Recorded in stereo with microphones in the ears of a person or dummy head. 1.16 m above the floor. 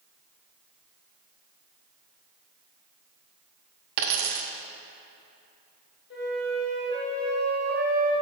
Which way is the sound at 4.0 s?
55° right (ahead or behind).